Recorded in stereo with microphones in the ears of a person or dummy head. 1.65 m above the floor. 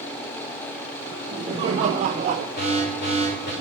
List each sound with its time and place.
1.1 s laughter: 25° right (ahead or behind), 3 m; by 2.5 s 40° right (ahead or behind), 1.2 m
2.6 s an alarm: 50° left (ahead or behind), 7.5 m